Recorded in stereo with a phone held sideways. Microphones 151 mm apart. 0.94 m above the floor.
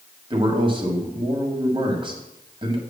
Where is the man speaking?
35° right (ahead or behind), 1.6 m.